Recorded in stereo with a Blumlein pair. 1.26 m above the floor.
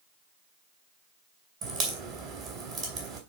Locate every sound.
1.6 s a crack: 40° right, 3 m